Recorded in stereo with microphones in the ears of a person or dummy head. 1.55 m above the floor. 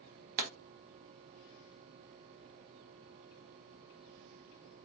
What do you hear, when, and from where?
0.4 s a pop: 45° right (ahead or behind), 0.5 m